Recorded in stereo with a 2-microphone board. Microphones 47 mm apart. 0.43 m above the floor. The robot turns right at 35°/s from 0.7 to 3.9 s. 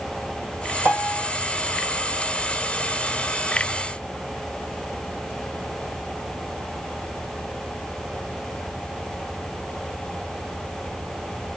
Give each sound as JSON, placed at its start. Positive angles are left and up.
{"t": 0.8, "sound": "a piano", "side_deg": -55, "distance_m": 1.6}